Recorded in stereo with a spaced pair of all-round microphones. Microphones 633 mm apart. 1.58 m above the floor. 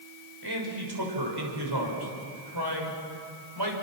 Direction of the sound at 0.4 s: 35° right (ahead or behind).